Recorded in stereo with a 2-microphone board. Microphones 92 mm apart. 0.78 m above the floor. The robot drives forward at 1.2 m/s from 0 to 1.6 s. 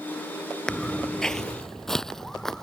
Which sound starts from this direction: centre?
Footsteps, at 0.7 s.